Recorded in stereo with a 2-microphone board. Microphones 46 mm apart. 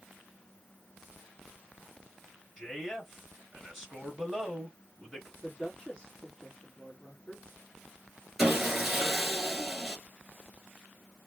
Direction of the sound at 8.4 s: 5° right (ahead or behind).